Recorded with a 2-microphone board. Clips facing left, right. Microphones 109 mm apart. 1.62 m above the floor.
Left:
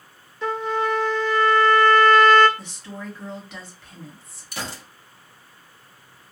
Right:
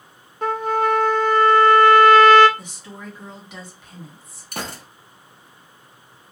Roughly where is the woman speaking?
Centre.